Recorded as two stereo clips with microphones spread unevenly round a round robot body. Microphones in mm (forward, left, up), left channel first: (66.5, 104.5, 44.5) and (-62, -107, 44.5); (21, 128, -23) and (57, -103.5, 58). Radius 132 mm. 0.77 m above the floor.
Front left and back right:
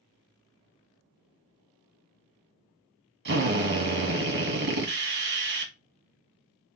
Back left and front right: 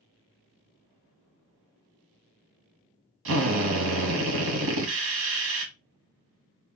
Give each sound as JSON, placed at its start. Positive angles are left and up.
{"t": 3.2, "sound": "a drill", "azimuth_deg": -105, "distance_m": 1.4}